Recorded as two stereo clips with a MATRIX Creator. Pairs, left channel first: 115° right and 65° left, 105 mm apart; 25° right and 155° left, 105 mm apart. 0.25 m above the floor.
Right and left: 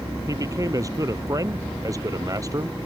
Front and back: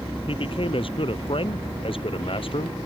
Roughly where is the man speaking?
Ahead.